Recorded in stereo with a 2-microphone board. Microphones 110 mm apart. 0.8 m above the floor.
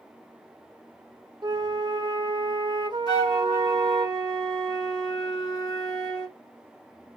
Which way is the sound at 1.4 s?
45° right (ahead or behind).